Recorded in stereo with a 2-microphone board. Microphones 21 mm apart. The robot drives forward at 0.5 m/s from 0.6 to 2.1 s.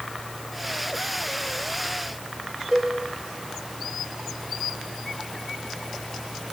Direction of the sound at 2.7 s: 25° right (ahead or behind).